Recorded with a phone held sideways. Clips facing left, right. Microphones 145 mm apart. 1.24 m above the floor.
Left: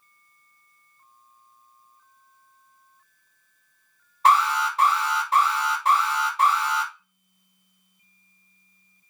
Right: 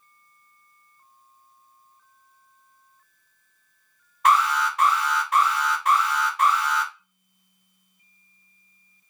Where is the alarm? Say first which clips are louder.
Left 1 dB; 30° left (ahead or behind), 1.3 m.